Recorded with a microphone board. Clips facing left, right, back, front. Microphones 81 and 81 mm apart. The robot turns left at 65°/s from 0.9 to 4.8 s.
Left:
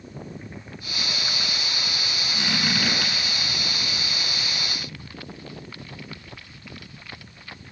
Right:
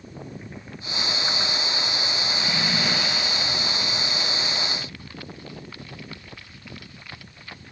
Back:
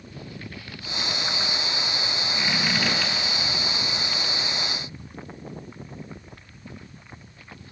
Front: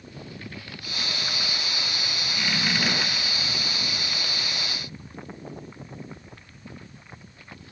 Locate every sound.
2.3 s a squeak: 120° left, 4 m; by 3.1 s 65° left, 4 m